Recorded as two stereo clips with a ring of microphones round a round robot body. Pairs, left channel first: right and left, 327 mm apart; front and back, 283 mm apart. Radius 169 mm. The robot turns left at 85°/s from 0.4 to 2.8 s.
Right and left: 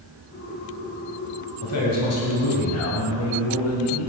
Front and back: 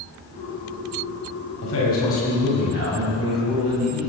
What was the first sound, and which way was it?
A man speaking, 35° right.